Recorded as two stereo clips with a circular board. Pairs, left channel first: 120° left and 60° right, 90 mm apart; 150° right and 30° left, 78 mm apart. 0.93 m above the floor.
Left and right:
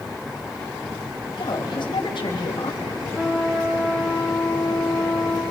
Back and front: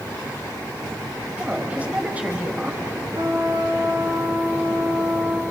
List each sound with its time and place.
1.4 s a woman speaking: 100° left, 4 m
3.1 s a trumpet: 15° left, 7 m